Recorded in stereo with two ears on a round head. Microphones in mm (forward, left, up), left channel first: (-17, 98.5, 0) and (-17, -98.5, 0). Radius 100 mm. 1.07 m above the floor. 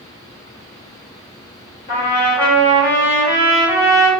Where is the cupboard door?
No cupboard door in this recording.